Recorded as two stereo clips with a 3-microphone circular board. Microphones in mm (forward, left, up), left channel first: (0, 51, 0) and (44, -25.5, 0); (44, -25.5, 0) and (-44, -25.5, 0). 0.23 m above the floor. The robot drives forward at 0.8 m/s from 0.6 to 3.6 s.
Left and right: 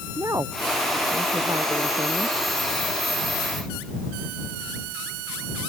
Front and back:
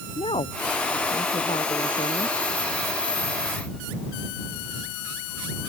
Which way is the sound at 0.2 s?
5° right.